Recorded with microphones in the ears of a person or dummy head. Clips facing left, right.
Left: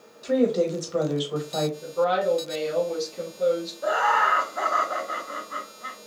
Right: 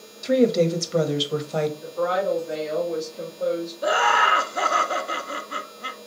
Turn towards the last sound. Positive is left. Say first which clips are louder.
# right 2 dB
turn(degrees=-40)  # may be behind; listen again after turning